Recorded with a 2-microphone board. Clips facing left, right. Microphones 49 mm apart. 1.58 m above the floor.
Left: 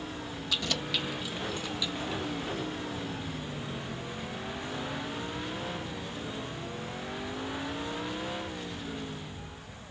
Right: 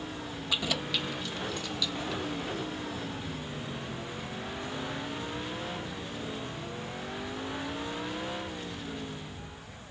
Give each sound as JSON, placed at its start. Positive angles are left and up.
{"t": 0.5, "sound": "keys jangling", "side_deg": -20}